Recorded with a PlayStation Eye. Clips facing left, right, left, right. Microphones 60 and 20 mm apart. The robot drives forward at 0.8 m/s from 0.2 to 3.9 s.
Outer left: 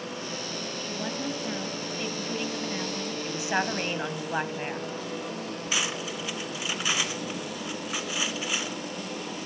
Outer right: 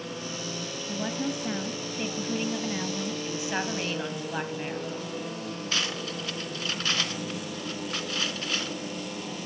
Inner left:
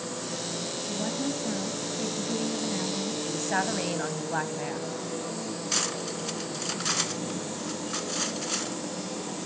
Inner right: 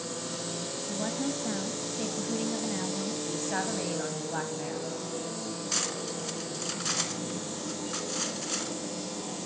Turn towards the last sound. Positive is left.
turn(degrees=10)  # may be behind; listen again after turning